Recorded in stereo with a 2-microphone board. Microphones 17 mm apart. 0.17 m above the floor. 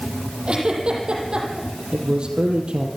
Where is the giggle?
70° right (ahead or behind), 6.5 m.